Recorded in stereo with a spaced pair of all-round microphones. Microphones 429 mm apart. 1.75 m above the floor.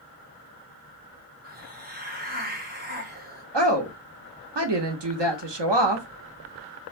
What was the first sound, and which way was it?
A hiss, 20° right (ahead or behind).